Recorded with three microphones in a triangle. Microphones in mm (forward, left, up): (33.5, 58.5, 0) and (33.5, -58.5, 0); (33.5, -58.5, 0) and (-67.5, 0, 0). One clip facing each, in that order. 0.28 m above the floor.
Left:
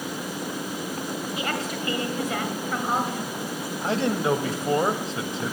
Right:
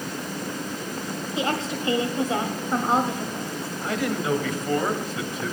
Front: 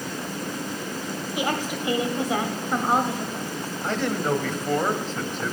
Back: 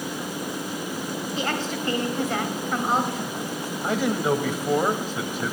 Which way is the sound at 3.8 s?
80° left.